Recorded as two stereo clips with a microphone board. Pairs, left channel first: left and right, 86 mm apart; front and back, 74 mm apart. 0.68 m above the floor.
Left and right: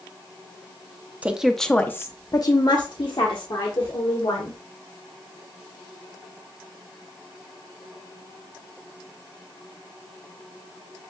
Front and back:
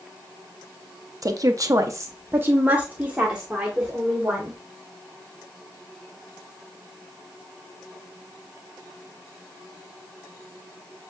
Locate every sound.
1.2 s a woman speaking: 160° right, 0.7 m; by 4.6 s 95° left, 2 m